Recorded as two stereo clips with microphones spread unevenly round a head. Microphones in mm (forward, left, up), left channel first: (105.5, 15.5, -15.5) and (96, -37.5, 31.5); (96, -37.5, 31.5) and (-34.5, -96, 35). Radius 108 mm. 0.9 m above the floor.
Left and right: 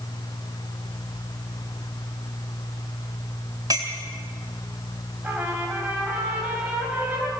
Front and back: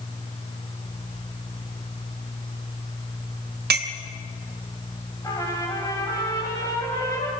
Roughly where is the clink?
Behind.